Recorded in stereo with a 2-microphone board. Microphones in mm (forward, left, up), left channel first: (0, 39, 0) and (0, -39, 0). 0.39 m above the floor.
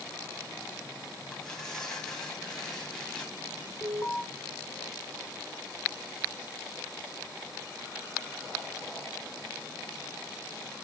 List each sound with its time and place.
1.3 s tearing paper: 5° left (ahead or behind), 2.5 m
3.8 s an alarm: 25° left (ahead or behind), 1.7 m